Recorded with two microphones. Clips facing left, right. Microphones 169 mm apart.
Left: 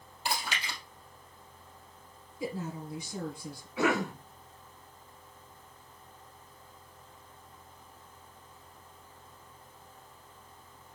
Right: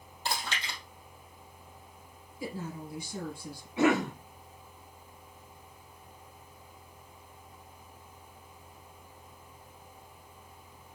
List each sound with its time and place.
0.2 s chewing: 15° left (ahead or behind), 2.5 m
2.4 s a woman speaking: 20° left (ahead or behind), 3 m
3.8 s a cough: 25° right (ahead or behind), 1.3 m